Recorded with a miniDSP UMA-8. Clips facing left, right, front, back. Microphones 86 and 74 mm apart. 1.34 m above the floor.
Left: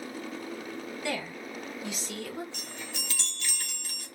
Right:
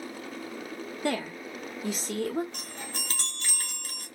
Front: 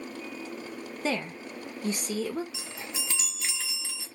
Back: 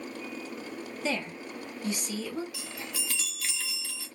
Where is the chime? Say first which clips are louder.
Right 1 dB, even; 60° right, 0.7 m.